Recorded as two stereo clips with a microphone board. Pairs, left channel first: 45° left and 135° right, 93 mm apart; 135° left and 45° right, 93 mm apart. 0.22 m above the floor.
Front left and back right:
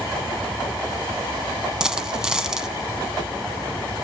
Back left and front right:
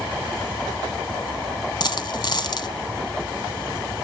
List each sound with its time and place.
1.8 s a dropped coin: 145° left, 0.8 m